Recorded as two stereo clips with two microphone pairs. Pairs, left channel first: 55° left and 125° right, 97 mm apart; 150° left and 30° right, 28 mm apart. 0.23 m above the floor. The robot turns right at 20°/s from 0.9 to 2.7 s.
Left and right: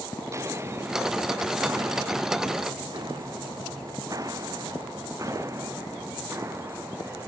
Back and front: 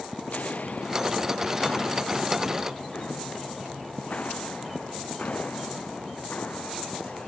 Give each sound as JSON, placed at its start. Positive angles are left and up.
{"t": 0.2, "sound": "footsteps", "azimuth_deg": 180}